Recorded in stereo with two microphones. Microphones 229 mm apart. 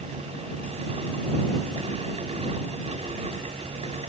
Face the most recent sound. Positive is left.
No sound to turn to.